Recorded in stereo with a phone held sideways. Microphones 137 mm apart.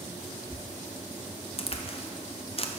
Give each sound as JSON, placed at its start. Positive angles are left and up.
{"t": 1.6, "sound": "a crack", "side_deg": 45, "distance_m": 0.5}